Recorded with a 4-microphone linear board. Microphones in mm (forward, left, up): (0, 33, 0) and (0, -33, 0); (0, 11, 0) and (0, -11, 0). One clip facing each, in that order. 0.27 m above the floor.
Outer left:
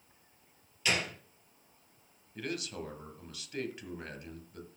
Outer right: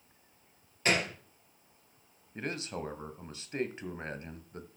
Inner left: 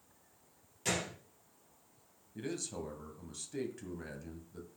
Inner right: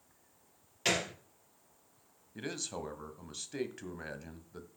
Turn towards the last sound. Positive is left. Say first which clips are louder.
# outer right 1 dB, inner right 1 dB
turn(degrees=-30)  # may be behind; listen again after turning